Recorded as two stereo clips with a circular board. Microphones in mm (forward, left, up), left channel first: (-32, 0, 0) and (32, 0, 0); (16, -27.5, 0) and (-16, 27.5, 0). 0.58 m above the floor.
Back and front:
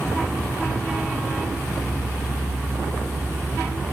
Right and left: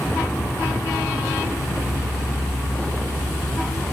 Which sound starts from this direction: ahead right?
An insect, at 0.0 s.